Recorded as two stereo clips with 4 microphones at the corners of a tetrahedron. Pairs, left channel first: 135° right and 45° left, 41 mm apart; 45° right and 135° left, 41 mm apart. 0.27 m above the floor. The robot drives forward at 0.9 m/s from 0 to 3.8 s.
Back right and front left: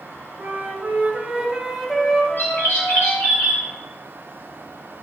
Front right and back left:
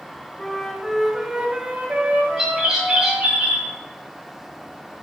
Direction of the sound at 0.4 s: 30° left.